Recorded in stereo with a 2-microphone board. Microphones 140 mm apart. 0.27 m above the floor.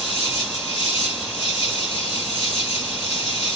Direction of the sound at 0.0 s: 60° left (ahead or behind).